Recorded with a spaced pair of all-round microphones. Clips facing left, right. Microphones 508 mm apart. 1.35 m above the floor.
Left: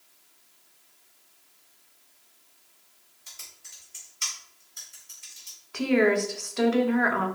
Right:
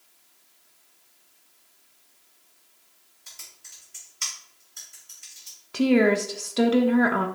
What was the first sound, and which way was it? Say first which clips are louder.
Typing on a keyboard: even; 35° right (ahead or behind).